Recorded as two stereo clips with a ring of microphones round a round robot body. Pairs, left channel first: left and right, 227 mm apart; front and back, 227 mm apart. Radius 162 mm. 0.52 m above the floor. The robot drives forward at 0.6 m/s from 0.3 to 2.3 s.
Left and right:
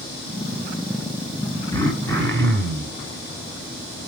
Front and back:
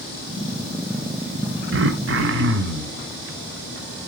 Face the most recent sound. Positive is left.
turn(degrees=170)